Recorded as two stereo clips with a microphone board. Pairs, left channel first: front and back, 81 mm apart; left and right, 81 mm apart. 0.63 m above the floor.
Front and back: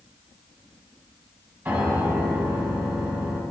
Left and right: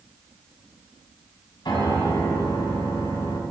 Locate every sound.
1.6 s a piano: 115° left, 2 m